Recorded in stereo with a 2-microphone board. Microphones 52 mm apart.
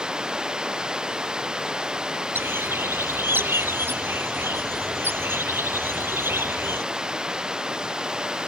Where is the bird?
45° right (ahead or behind).